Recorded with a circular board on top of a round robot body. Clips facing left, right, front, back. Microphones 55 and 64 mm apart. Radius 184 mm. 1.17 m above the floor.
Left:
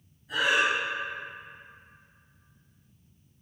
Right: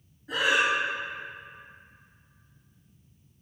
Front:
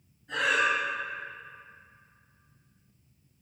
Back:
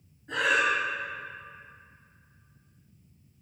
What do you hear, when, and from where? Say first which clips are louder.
0.3 s breathing: even, back 1 dB; 120° right, 0.7 m